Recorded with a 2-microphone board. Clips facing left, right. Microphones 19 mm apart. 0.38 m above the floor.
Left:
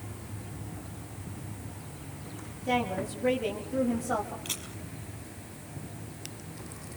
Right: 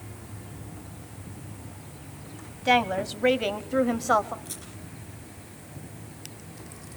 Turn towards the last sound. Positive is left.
turn(degrees=45)  # may be behind; listen again after turning